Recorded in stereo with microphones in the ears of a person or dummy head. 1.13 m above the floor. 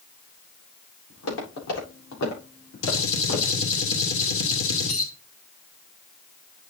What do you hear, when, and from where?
1.1 s footsteps: 75° left (ahead or behind), 8.5 m; by 3.6 s 80° left, 7.5 m
2.8 s a gunshot: 85° left, 2 m